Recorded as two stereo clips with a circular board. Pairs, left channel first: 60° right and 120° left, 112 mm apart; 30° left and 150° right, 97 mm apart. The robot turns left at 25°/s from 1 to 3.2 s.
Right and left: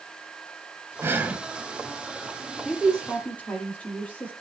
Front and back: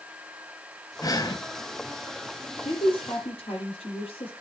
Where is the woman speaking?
30° left, 9.5 m; by 4.3 s 15° left, 9.5 m.